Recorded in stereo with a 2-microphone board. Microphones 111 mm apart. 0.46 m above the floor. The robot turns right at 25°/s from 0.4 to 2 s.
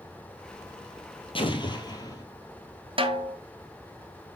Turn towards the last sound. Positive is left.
turn(degrees=-55)  # may be behind; listen again after turning